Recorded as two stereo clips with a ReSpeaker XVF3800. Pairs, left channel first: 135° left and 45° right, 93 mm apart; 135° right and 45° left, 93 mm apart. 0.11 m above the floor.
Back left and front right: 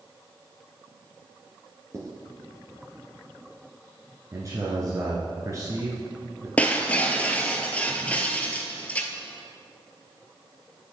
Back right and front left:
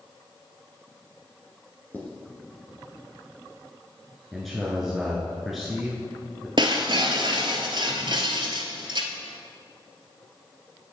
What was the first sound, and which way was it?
Writing, 80° right.